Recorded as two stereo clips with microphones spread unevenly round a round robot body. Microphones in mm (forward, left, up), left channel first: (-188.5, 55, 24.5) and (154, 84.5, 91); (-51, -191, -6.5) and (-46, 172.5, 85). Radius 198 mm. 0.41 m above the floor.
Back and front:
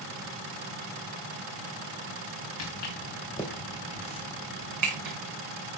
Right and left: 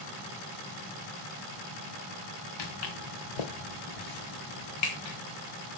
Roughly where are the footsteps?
Behind right.